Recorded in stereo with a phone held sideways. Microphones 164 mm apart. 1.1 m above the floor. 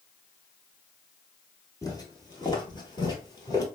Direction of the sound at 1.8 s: 20° left (ahead or behind).